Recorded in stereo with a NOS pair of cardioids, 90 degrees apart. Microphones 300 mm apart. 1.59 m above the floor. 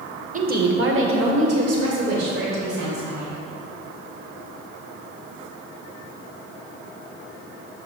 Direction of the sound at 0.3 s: 25° right.